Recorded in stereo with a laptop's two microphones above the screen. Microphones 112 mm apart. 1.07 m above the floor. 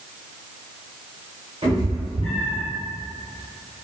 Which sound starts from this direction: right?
A cat meowing, at 1.6 s.